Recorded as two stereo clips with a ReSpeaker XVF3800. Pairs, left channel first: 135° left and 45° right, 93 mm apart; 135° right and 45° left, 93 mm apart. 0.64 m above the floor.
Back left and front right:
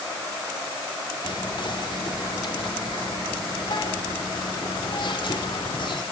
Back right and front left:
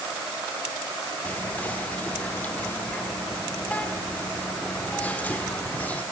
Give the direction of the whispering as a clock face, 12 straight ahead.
7 o'clock.